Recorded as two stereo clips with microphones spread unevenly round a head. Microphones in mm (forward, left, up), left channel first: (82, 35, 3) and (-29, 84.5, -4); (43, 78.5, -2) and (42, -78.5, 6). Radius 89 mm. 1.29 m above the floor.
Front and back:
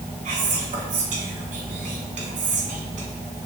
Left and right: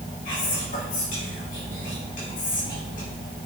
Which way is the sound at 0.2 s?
135° left.